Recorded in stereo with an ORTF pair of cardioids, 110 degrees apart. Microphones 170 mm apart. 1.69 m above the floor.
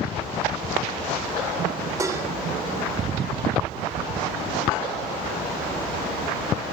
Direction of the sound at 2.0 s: 20° right.